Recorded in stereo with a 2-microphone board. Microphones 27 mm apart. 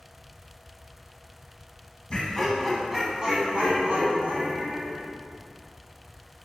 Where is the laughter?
20° left (ahead or behind), 1.2 m; by 5.0 s 60° right (ahead or behind), 2.5 m.